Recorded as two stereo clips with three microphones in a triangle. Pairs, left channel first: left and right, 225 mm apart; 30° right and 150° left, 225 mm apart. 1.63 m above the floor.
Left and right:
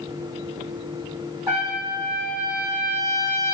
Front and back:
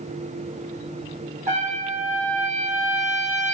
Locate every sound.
1.5 s a trumpet: 160° right, 1.7 m